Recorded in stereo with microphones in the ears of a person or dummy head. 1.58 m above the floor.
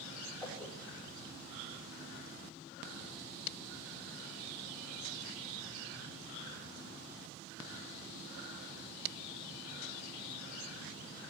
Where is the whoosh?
Centre (ahead or behind), 2.5 m.